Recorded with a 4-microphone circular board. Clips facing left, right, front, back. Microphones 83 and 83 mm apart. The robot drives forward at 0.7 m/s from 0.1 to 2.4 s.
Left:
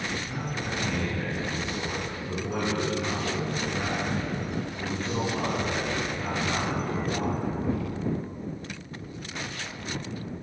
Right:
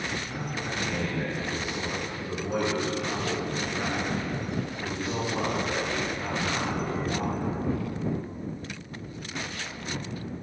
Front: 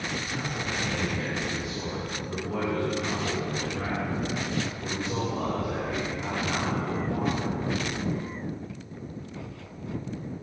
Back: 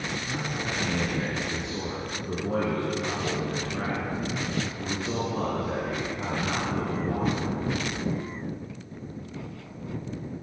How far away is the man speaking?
About 4 m.